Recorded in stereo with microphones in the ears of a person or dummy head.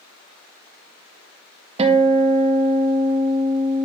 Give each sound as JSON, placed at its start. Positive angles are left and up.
{"t": 1.8, "sound": "a guitar", "side_deg": -35, "distance_m": 0.9}